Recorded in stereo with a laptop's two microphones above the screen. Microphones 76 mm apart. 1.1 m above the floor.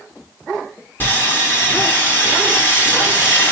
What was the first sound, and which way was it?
Sawing, 30° left (ahead or behind).